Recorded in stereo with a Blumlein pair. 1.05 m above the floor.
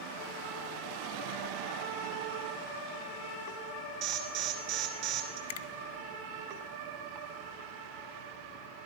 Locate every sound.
4.0 s an alarm: 40° right, 2.5 m
5.5 s a finger snap: 55° left, 0.5 m